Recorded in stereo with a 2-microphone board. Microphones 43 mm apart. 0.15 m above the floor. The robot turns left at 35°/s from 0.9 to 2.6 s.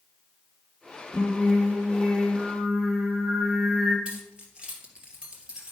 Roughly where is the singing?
Ahead left.